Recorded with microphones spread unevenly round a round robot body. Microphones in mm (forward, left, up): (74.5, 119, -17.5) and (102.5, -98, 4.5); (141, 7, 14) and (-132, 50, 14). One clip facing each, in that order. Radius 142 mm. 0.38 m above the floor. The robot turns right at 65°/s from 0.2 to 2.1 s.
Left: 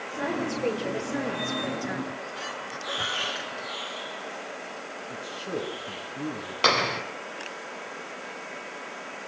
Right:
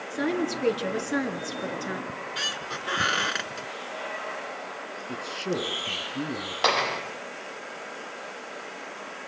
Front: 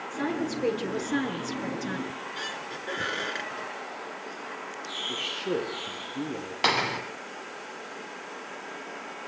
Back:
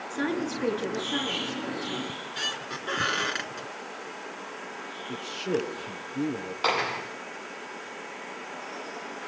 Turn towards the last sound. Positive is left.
turn(degrees=35)